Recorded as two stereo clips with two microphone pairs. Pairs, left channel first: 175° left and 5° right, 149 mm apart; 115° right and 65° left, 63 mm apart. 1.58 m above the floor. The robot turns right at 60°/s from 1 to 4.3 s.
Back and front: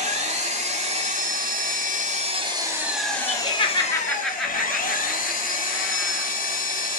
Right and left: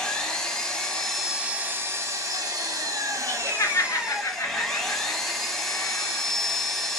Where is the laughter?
155° right, 0.7 m; by 6.3 s 95° right, 0.7 m.